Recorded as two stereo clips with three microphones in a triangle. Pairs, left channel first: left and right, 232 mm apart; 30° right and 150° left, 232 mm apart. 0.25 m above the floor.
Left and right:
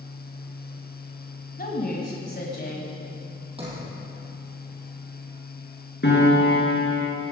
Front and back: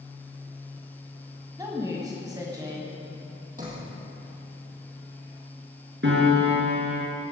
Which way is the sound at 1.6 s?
85° left.